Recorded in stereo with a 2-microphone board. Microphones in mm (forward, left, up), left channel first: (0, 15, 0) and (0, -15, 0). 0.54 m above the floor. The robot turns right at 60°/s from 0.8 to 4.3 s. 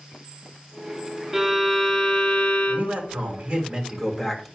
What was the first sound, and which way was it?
A violin, 10° right.